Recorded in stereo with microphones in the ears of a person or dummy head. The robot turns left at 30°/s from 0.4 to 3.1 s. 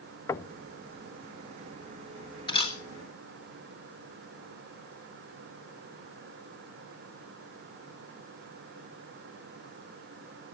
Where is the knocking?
15° left (ahead or behind), 0.5 m; by 0.6 s 20° left (ahead or behind), 0.5 m.